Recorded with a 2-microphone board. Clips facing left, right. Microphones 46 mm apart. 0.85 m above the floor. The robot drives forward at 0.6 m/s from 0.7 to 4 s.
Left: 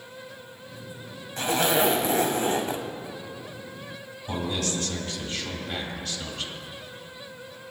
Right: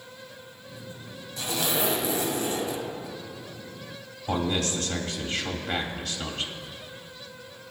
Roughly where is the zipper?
Left.